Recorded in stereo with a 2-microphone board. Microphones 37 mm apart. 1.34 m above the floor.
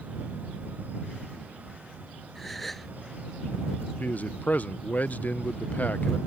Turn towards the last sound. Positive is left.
turn(degrees=45)  # may be behind; listen again after turning